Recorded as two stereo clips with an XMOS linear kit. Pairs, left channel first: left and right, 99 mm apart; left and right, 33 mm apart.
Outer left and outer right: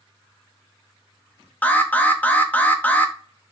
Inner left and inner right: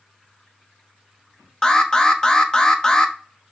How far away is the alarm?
About 0.5 m.